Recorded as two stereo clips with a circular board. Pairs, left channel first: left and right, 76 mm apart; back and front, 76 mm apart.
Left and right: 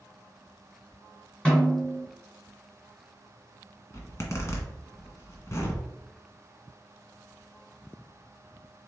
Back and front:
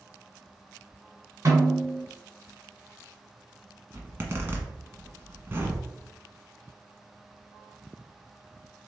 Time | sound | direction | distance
1.4 | a snare drum | 20° left | 2 m
3.9 | a zipper | 55° left | 1.2 m